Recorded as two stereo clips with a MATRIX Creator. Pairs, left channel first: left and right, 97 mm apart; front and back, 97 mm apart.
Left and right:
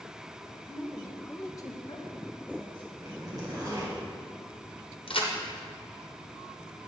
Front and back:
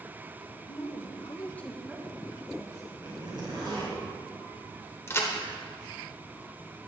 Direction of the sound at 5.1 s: 65° left.